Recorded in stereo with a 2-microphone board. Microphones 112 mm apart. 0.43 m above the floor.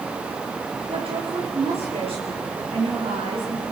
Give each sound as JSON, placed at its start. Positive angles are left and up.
{"t": 0.9, "sound": "a woman speaking", "side_deg": -60, "distance_m": 8.5}